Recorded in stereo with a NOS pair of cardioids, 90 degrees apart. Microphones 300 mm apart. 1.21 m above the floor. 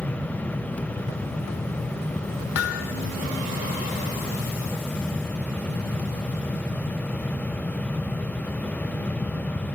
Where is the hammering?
60° left, 2 m.